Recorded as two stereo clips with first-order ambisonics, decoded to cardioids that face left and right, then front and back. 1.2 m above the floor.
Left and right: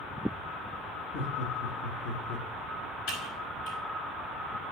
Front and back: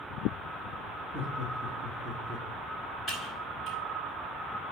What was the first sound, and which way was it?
Laughter, 80° left.